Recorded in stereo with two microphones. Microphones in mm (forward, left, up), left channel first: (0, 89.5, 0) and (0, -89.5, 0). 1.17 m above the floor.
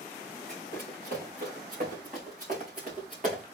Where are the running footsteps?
60° right (ahead or behind), 6 m; by 3.4 s 45° right (ahead or behind), 6 m.